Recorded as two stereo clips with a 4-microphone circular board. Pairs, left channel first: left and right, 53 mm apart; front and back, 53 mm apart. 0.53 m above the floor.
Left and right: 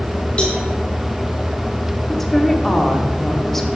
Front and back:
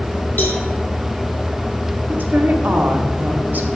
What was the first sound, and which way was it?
A cowbell, 30° left.